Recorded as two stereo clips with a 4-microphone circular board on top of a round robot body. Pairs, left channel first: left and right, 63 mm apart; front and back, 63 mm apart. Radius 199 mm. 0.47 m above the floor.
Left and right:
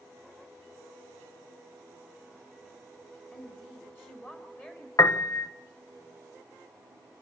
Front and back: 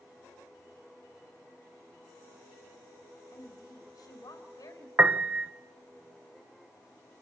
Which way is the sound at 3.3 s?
30° left.